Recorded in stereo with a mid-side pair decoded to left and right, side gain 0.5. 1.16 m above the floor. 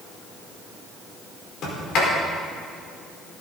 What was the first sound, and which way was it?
A sliding door, 65° left.